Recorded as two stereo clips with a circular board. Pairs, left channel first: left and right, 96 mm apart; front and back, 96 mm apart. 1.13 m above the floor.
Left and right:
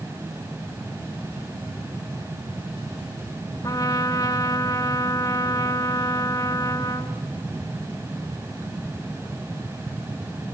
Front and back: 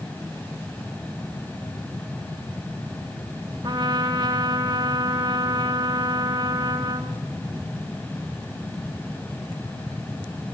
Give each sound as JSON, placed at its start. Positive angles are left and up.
{"t": 3.6, "sound": "a trumpet", "azimuth_deg": 140, "distance_m": 2.0}